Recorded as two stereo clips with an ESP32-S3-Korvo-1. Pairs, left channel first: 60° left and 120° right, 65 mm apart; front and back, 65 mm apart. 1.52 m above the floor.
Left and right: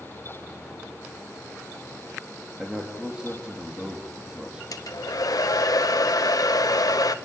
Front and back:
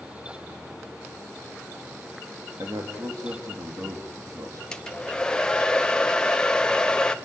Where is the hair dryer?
75° left, 1.0 m.